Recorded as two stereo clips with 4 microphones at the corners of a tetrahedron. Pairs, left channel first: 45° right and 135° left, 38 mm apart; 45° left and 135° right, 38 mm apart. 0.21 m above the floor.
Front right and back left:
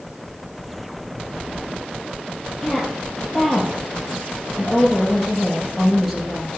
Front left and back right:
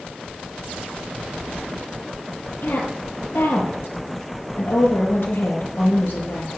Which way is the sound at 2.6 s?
40° left.